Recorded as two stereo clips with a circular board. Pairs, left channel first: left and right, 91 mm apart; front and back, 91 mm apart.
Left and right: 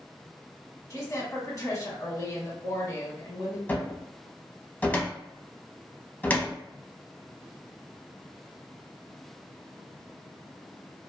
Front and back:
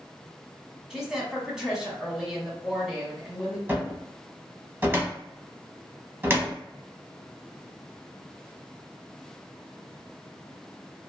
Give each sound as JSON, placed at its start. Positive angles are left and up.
{"t": 0.9, "sound": "a woman speaking", "azimuth_deg": 100, "distance_m": 1.2}
{"t": 3.7, "sound": "a cupboard door", "azimuth_deg": 140, "distance_m": 0.6}